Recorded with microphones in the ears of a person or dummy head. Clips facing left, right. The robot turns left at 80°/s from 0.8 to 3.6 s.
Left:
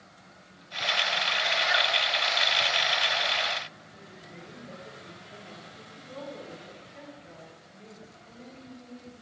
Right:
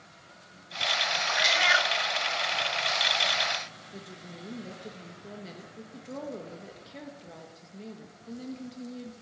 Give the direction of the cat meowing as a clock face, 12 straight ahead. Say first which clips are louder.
Right 3 dB; 3 o'clock.